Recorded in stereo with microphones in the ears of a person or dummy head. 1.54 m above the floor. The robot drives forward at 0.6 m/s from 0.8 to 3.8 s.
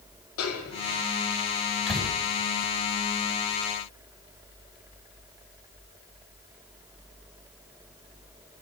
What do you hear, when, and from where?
0.4 s a snare drum: 80° left, 4.5 m; by 0.9 s 85° left, 4.5 m
1.9 s a door slam: centre (ahead or behind), 8.5 m